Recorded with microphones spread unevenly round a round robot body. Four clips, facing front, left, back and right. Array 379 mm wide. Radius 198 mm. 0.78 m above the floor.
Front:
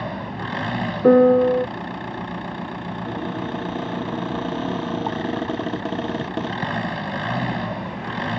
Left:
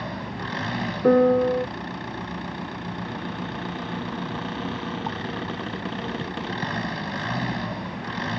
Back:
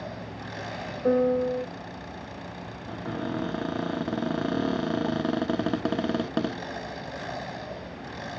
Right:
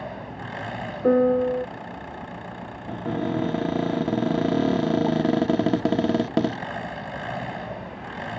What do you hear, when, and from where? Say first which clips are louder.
0.0 s an engine running: left 2 dB, front 9 dB; 20° left
1.0 s a piano: left 1 dB, front 10 dB; 30° left
2.9 s a cupboard door: right 5 dB, front 1 dB; 80° right